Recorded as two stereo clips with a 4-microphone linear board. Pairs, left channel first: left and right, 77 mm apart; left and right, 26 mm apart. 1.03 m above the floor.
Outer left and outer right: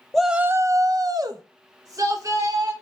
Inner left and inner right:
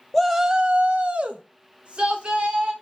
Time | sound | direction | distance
0.1 | a shout | 5° left (ahead or behind) | 0.6 m